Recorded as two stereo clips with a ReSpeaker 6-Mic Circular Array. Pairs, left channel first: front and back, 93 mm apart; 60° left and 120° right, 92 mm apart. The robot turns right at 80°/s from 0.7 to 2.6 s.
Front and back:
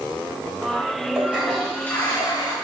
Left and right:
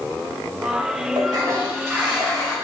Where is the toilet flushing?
125° right, 0.9 m; by 2.5 s 15° right, 0.9 m.